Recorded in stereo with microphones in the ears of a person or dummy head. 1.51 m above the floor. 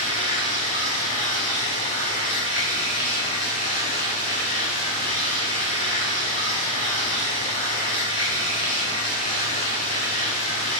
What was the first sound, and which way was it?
Running water, 40° left (ahead or behind).